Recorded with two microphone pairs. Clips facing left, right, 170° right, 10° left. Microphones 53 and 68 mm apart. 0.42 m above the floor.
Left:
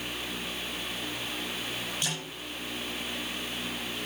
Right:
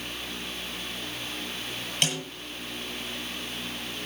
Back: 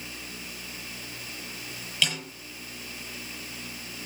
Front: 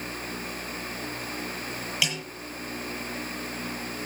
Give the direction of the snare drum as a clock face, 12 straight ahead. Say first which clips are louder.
Right 10 dB, back 2 dB; 2 o'clock.